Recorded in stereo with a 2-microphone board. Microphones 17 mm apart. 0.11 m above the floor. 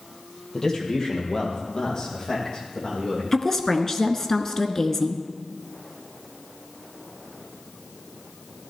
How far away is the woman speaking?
About 1.1 m.